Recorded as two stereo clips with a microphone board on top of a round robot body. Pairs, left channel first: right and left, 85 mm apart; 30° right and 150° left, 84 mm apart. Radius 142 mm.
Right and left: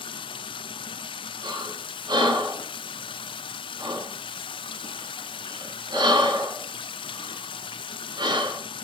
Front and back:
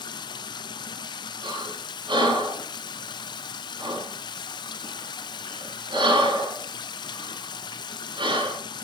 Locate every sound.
0.0 s running water: 65° right, 0.7 m
1.4 s breathing: 125° left, 7.5 m